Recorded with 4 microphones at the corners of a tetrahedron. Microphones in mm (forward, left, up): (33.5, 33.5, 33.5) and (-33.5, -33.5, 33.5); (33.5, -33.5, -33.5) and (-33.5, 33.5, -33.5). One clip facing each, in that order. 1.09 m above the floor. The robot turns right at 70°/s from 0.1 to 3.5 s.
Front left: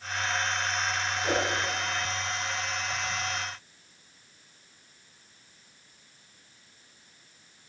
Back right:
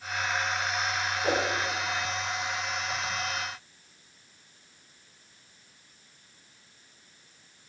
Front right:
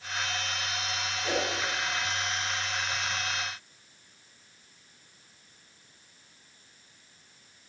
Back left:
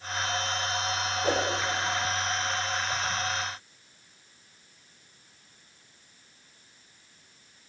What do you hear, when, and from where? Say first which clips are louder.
1.2 s a whoosh: back right 1 dB, back left 3 dB; 170° left, 2 m; by 1.5 s 175° right, 2 m